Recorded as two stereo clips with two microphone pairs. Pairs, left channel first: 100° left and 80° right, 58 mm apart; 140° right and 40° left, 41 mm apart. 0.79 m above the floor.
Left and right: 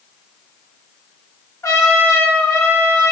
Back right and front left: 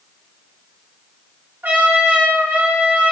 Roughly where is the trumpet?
Left.